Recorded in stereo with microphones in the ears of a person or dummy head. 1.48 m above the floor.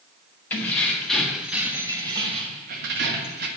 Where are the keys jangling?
15° left (ahead or behind), 1.9 m; by 3.5 s 60° right (ahead or behind), 1.3 m.